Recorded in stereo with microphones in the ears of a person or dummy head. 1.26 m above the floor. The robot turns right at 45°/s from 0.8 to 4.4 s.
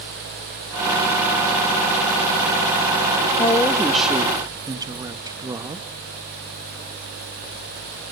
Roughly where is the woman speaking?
Behind left.